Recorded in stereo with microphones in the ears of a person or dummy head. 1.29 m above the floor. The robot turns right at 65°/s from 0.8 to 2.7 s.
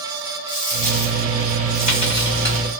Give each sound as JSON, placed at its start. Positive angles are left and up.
{"t": 0.5, "sound": "a dropped coin", "azimuth_deg": 50, "distance_m": 1.8}